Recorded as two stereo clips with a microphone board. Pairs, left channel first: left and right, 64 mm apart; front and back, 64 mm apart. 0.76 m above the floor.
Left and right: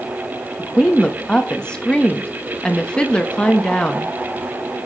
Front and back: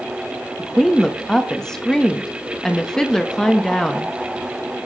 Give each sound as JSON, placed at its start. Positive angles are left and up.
{"t": 0.6, "sound": "a woman speaking", "azimuth_deg": 55, "distance_m": 0.8}